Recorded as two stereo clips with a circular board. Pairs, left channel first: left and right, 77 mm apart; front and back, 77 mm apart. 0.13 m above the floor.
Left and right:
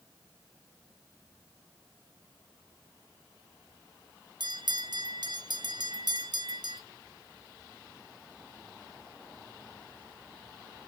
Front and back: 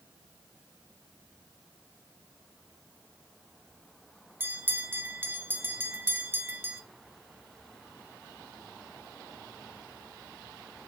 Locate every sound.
4.4 s a bell: 115° right, 1.1 m